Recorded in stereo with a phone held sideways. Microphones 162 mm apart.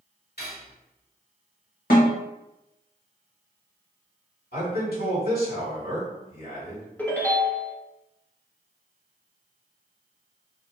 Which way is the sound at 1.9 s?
65° left (ahead or behind).